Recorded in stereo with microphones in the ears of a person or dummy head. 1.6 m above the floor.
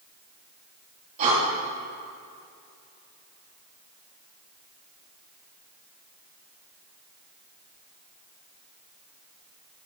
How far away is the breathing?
About 3 m.